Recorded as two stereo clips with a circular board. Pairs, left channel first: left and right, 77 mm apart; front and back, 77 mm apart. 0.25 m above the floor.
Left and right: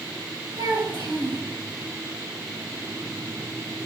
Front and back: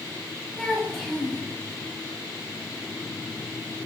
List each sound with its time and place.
0.6 s a child speaking: 85° right, 3 m